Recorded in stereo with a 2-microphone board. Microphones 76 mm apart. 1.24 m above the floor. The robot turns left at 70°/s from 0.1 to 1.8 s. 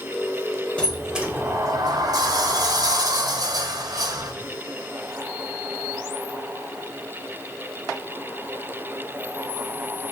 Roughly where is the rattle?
No rattle in this recording.